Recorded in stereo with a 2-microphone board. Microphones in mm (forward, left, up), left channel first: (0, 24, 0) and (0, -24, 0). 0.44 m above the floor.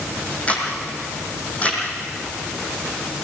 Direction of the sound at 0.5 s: 30° left (ahead or behind).